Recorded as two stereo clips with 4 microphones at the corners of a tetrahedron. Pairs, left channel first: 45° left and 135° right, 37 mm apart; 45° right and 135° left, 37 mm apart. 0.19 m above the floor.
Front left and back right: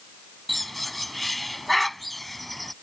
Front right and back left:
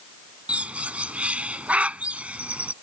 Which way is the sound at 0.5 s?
130° left.